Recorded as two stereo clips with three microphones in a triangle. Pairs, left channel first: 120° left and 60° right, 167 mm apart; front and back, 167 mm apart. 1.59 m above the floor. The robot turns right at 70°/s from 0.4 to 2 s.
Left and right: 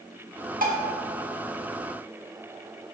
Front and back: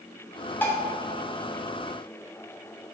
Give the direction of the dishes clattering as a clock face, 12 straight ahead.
3 o'clock.